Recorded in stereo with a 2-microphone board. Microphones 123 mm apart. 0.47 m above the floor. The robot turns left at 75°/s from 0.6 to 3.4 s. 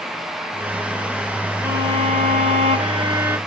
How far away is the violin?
About 0.7 m.